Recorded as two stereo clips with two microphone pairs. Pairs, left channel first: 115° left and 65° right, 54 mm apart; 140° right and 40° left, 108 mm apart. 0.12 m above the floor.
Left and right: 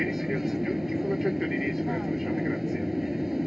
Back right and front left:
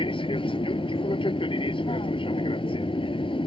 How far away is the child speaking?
I don't hear a child speaking.